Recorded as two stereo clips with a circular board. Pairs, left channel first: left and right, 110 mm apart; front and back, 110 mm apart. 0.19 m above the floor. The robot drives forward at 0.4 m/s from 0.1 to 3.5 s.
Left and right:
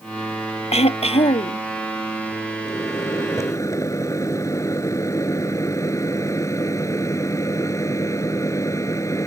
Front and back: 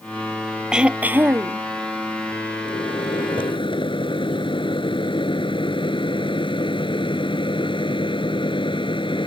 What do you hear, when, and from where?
0.7 s throat clearing: 95° left; by 1.6 s 115° left
2.6 s a microwave: 30° left